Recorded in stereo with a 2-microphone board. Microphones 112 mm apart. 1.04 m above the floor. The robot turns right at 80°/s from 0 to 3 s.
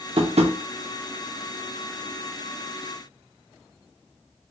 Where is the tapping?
55° right (ahead or behind), 0.6 m; by 0.6 s 85° right, 0.6 m.